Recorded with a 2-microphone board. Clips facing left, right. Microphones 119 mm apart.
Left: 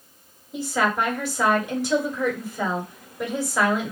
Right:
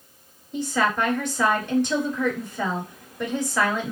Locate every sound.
0.5 s a woman speaking: 5° left (ahead or behind), 1.6 m